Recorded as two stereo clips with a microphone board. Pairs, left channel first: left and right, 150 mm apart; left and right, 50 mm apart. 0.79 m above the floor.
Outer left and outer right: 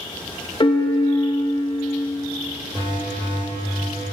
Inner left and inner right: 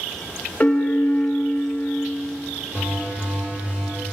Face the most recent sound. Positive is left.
turn(degrees=-30)  # may be behind; listen again after turning